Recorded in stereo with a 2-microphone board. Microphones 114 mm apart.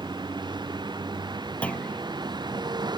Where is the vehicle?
40° right (ahead or behind).